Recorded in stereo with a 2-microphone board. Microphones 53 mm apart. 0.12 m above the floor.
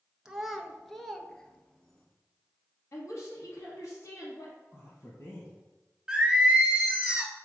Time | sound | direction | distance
0.2 | a child speaking | 10° right (ahead or behind) | 0.7 m
2.9 | a woman speaking | 60° left (ahead or behind) | 2.5 m
4.7 | a man speaking | 55° left (ahead or behind) | 3 m
6.1 | singing | 15° right (ahead or behind) | 0.9 m